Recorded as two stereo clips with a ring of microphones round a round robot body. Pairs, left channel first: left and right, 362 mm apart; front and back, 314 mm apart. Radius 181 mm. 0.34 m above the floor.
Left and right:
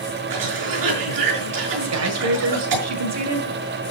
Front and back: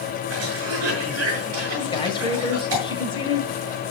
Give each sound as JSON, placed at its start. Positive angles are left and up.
{"t": 0.3, "sound": "a cough", "azimuth_deg": -125, "distance_m": 6.0}
{"t": 1.8, "sound": "a man speaking", "azimuth_deg": -70, "distance_m": 1.9}